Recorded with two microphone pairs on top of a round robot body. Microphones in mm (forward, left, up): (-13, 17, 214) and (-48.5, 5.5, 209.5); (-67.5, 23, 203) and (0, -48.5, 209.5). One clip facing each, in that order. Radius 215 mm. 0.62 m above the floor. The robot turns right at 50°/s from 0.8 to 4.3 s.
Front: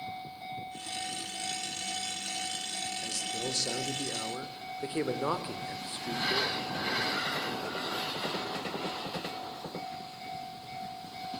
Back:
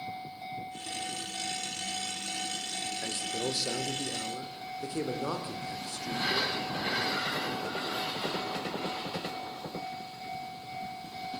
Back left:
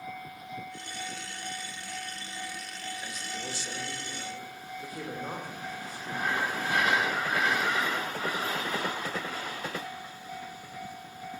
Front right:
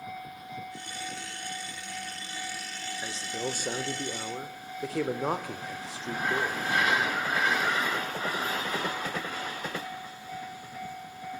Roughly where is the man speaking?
Behind right.